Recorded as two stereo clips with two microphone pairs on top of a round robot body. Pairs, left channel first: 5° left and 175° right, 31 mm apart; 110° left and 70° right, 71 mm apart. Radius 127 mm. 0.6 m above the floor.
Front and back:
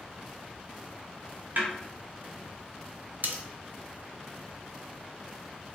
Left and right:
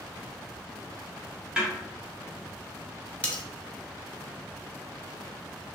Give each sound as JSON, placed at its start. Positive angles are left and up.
{"t": 1.6, "sound": "a snare drum", "azimuth_deg": -145, "distance_m": 0.8}
{"t": 3.2, "sound": "cutlery clinking", "azimuth_deg": 180, "distance_m": 0.7}